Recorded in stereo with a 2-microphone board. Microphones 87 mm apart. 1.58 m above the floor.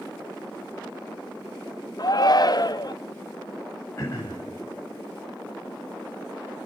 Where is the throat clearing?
30° left (ahead or behind), 6 m.